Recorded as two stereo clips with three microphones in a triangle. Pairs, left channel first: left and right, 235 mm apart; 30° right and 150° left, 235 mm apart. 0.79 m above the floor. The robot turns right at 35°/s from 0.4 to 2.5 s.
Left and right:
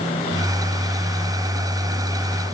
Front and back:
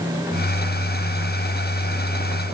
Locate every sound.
Only background noise.